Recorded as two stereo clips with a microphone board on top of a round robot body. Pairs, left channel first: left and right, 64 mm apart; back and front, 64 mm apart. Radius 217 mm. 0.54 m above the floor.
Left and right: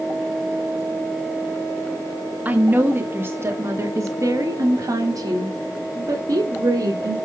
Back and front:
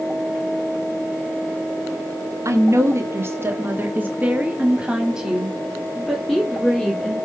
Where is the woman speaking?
25° right, 1.9 m; by 7.2 s 100° right, 3 m.